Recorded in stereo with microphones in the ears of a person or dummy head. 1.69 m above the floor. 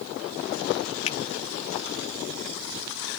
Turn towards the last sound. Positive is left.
turn(degrees=40)  # may be behind; listen again after turning